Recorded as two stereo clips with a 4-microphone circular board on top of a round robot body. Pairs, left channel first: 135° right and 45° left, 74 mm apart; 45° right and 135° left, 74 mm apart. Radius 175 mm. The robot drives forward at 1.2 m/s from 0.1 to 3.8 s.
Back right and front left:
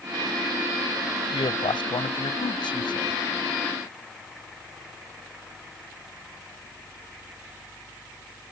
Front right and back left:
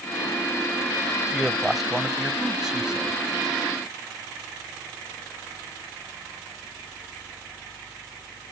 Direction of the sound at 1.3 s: 135° right.